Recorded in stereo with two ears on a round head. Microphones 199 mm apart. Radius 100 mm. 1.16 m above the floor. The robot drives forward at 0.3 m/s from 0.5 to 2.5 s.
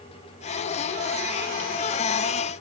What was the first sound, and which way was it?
Only background noise.